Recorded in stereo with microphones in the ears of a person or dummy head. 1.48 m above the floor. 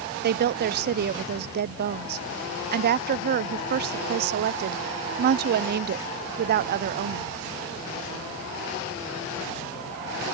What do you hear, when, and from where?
0.2 s a woman speaking: 50° right (ahead or behind)